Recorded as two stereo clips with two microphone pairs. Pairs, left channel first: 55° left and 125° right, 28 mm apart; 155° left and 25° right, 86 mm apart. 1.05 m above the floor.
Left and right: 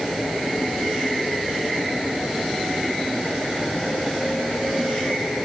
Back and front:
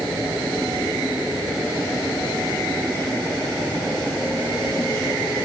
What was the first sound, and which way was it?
Only background noise.